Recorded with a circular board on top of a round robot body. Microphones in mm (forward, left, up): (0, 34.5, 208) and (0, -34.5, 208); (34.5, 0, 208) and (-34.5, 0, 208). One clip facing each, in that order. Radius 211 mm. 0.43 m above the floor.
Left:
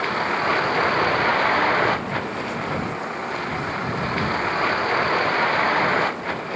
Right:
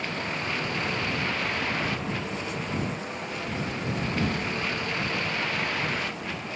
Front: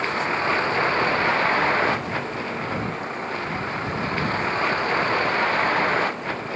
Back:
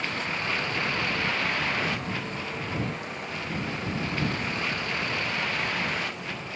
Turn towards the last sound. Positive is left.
turn(degrees=50)